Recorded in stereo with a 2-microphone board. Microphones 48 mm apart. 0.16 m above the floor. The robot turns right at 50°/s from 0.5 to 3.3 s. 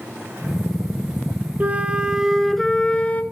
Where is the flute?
40° right, 0.9 m; by 3.2 s 40° left, 0.9 m.